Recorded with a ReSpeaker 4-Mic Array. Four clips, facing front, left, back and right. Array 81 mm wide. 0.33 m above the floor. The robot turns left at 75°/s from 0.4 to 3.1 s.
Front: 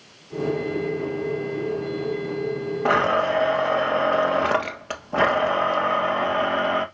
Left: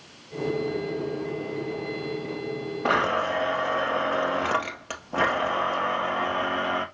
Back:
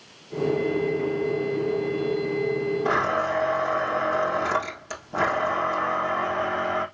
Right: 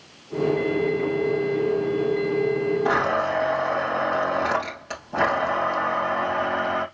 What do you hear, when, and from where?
2.9 s a blender: 30° left, 1.8 m; by 6.8 s 10° left, 1.8 m